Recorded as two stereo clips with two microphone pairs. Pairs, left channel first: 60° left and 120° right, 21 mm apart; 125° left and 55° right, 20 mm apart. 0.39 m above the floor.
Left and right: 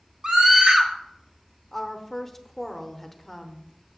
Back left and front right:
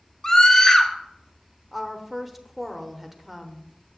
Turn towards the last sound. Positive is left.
turn(degrees=10)